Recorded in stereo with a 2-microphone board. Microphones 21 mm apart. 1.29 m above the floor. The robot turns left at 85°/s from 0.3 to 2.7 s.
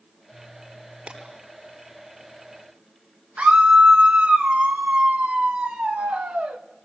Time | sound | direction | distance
1.1 | breaking glass | 50° right (ahead or behind) | 9 m
3.4 | a scream | 80° right | 1.7 m